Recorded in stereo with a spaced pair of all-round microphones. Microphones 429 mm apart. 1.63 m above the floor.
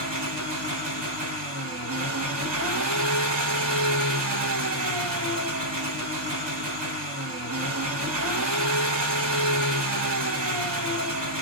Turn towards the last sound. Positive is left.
turn(degrees=-75)  # may be behind; listen again after turning